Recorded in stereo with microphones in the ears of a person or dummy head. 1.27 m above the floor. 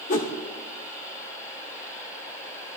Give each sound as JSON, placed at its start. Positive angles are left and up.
{"t": 0.1, "sound": "a whoosh", "side_deg": 45, "distance_m": 0.8}